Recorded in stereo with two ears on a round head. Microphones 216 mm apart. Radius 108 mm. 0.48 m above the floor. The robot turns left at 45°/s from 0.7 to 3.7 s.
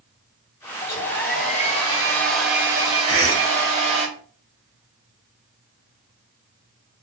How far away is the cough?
About 2 m.